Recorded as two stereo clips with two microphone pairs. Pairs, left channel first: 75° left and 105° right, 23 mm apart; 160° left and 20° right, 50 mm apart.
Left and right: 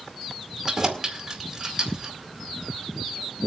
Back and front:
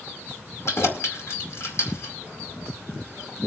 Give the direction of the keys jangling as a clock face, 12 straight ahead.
6 o'clock.